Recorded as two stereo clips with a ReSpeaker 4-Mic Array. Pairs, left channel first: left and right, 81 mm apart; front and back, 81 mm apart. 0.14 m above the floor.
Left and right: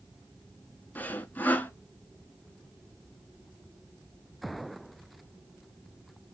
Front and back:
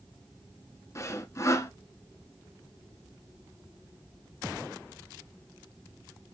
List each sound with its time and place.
0.9 s sawing: 30° left, 0.7 m